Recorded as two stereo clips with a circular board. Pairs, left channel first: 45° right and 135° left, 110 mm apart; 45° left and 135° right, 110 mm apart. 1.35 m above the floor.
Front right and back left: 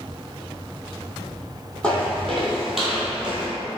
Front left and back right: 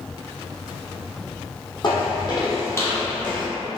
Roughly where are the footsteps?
Ahead left.